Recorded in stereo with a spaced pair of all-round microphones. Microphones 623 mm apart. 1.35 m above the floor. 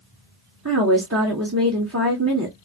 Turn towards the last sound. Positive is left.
turn(degrees=-25)  # may be behind; listen again after turning